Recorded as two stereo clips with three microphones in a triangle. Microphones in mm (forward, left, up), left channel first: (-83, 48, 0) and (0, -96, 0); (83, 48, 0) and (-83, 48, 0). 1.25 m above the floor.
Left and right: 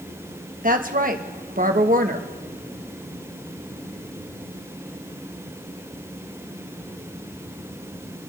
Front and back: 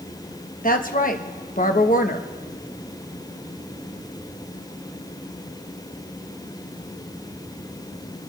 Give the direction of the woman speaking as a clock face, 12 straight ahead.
1 o'clock.